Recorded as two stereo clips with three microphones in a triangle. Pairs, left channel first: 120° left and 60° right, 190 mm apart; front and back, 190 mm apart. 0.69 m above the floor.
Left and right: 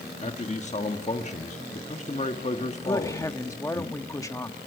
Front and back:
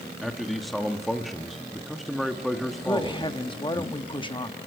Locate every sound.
0.2 s a man speaking: 90° left, 1.0 m
2.9 s a woman speaking: 55° left, 1.1 m